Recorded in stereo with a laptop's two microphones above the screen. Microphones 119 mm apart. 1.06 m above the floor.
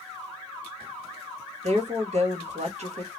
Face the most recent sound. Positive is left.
turn(degrees=-65)  # may be behind; listen again after turning